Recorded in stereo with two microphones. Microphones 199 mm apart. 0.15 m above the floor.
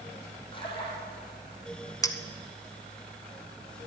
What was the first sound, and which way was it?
A splash, 25° left (ahead or behind).